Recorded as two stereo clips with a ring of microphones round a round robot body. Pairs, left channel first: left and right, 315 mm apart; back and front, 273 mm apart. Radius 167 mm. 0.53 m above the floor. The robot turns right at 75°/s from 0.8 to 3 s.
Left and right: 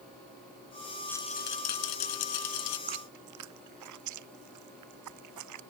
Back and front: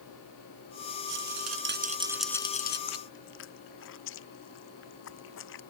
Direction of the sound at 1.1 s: 5° left.